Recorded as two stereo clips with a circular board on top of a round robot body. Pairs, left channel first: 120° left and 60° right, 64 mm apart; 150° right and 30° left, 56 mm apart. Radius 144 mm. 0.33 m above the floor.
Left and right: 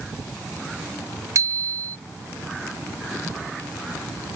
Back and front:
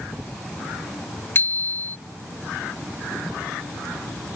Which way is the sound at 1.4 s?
100° right.